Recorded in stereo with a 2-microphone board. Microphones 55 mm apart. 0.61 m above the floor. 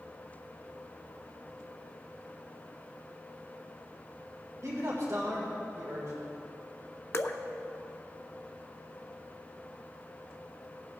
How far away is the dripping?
About 0.5 m.